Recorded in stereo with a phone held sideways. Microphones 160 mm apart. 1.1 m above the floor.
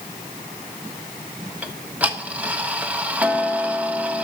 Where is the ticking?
10° right (ahead or behind), 0.7 m.